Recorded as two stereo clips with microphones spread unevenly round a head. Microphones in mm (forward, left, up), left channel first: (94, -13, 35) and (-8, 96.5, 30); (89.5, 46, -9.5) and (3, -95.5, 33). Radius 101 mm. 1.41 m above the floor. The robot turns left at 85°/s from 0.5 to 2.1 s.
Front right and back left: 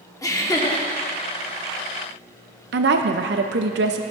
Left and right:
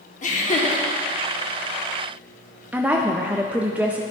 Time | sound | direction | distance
0.2 | laughter | 20° left | 1.5 m
2.7 | a woman speaking | 155° left | 0.5 m